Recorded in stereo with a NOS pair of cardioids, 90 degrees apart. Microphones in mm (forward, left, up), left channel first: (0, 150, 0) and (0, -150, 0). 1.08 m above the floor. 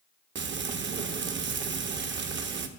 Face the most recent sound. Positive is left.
turn(degrees=-40)